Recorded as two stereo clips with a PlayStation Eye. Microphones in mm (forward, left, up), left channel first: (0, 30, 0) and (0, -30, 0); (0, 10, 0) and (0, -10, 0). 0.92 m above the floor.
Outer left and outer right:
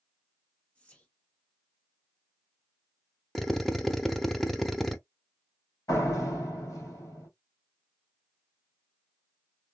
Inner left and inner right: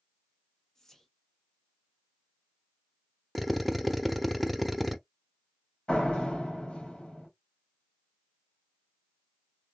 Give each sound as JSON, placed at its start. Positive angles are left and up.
{"t": 0.8, "sound": "whispering", "side_deg": 25, "distance_m": 1.0}
{"t": 3.4, "sound": "a drill", "side_deg": 0, "distance_m": 0.6}
{"t": 5.9, "sound": "a door slam", "side_deg": 65, "distance_m": 1.8}